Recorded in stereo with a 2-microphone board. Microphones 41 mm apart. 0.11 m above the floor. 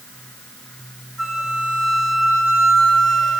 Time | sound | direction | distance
1.2 | a flute | 10° right (ahead or behind) | 2.5 m